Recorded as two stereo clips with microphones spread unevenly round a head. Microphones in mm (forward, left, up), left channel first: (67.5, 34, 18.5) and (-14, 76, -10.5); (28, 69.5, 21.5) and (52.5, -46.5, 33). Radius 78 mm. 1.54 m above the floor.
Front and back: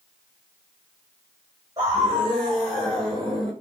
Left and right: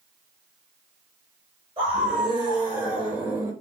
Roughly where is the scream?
Behind right.